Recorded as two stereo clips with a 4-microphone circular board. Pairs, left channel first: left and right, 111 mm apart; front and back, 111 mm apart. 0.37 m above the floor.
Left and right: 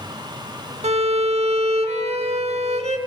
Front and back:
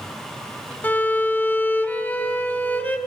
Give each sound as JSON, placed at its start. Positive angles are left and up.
{"t": 0.8, "sound": "a violin", "azimuth_deg": -75, "distance_m": 0.6}